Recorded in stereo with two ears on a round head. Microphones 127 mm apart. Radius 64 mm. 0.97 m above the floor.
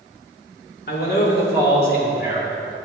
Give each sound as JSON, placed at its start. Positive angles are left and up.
{"t": 0.9, "sound": "a man speaking", "side_deg": 75, "distance_m": 3.0}